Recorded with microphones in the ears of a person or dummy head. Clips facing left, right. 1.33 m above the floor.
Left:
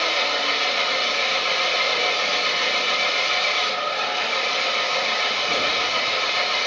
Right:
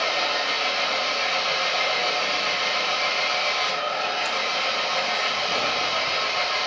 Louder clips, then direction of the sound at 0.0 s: Left 1 dB; 45° left (ahead or behind).